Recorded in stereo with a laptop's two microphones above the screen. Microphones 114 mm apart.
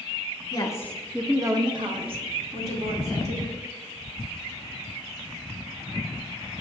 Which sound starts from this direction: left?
A woman speaking, at 0.5 s.